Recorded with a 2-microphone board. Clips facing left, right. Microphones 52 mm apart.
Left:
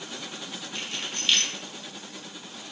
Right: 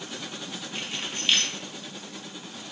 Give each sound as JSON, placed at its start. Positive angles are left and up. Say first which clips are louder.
{"t": 0.8, "sound": "keys jangling", "louder": "even", "side_deg": -15, "distance_m": 0.6}